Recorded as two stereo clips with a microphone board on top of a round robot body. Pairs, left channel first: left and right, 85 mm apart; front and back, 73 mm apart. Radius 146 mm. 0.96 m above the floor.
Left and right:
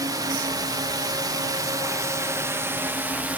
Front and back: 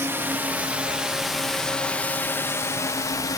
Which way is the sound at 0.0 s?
125° right.